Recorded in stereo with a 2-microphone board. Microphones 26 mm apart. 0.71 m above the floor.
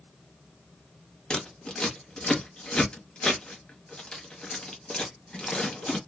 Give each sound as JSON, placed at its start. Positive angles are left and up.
{"t": 1.3, "sound": "scissors", "side_deg": 35, "distance_m": 1.2}